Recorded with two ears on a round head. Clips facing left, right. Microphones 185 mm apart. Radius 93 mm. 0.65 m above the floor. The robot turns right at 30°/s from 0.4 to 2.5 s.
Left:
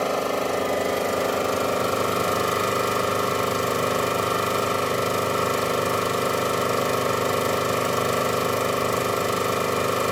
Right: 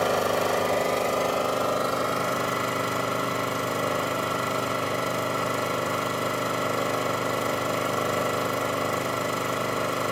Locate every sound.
0.0 s an engine running: 10° right, 1.7 m; by 10.1 s 50° left, 1.7 m